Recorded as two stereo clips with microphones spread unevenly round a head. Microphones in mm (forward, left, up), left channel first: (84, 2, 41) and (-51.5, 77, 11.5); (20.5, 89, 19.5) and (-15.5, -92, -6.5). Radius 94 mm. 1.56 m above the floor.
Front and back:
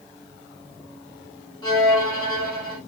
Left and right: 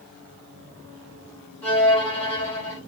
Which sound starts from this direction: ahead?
A violin, at 1.6 s.